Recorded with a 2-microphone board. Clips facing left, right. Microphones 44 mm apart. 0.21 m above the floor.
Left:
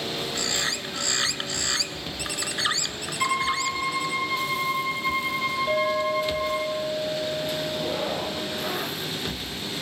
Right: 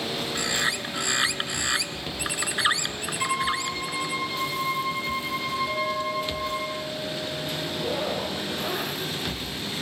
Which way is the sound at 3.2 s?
15° left (ahead or behind).